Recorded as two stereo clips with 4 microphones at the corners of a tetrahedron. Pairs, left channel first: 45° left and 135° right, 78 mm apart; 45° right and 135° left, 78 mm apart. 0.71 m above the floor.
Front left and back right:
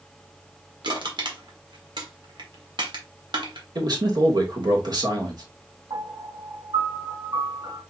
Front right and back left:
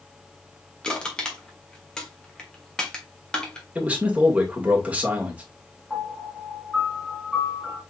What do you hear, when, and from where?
0.8 s crushing: 125° right, 1.6 m
3.8 s a man speaking: 155° right, 1.9 m
5.9 s a piano: 130° right, 2.5 m